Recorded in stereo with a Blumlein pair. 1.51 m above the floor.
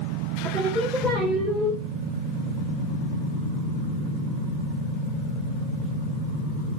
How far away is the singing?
About 3 m.